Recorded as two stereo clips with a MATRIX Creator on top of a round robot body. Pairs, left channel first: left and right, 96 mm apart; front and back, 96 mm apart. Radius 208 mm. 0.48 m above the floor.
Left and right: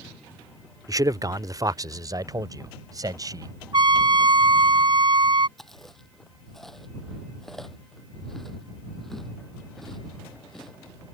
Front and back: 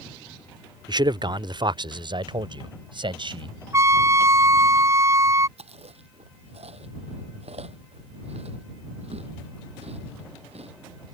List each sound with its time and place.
0.9 s a man speaking: 140° right
3.7 s a trumpet: 120° right
5.6 s chewing: 175° left